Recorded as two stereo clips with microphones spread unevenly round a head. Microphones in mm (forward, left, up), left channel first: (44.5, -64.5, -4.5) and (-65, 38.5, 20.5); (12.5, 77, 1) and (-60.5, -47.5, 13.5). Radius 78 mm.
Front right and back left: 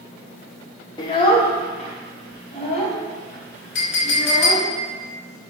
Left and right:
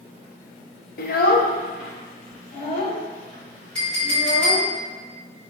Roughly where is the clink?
Ahead right.